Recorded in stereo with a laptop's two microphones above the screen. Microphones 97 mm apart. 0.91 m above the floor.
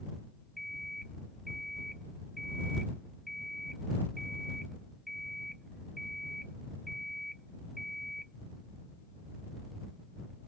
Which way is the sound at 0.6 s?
Centre (ahead or behind).